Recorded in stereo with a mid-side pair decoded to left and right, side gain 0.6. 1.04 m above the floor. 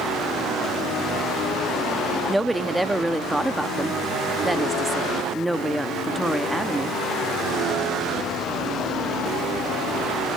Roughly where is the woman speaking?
Ahead.